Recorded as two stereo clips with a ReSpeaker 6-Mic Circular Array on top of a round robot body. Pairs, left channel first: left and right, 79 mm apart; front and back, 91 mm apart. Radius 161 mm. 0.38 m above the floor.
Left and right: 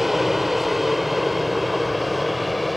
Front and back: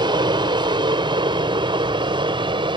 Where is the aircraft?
Straight behind.